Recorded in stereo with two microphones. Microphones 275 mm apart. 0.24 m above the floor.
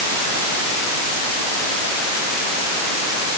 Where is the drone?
I don't hear a drone.